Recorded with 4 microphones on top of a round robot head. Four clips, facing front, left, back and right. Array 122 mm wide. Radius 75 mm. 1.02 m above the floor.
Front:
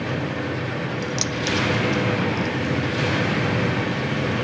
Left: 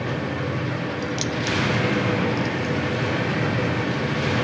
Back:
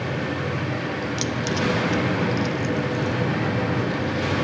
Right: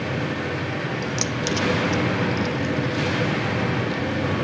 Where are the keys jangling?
40° right, 0.7 m; by 4.5 s 170° right, 2.5 m.